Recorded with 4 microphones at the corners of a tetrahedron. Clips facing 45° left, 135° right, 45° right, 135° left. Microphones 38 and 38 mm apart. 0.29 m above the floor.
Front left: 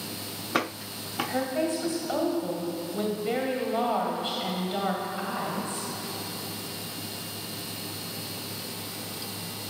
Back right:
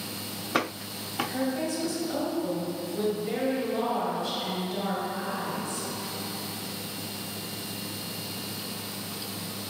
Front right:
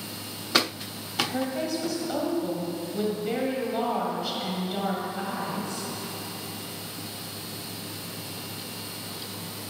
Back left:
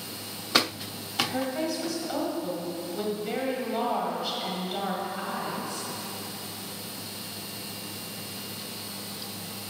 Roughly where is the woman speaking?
Ahead left.